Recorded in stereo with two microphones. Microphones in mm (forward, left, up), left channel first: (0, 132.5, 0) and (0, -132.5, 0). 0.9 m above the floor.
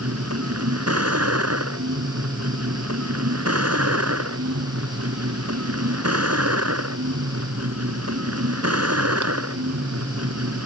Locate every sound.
0.0 s a vehicle: 70° right (ahead or behind)